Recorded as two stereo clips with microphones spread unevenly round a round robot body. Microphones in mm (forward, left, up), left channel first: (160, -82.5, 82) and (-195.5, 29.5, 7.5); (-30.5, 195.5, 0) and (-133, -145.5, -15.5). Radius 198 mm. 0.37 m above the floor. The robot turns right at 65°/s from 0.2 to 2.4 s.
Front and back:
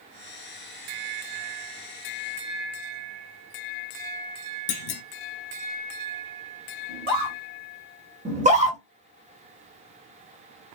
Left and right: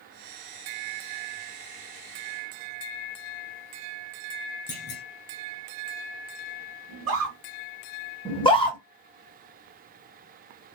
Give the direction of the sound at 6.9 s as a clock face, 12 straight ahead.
3 o'clock.